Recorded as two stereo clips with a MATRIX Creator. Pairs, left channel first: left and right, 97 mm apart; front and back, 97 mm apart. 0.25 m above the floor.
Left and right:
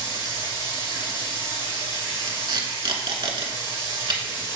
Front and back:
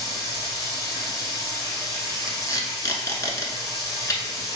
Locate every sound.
0.0 s running water: 55° left, 1.9 m
2.3 s tape being pulled: 55° right, 0.9 m